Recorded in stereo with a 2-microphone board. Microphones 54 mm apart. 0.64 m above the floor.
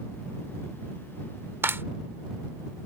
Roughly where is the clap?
Right.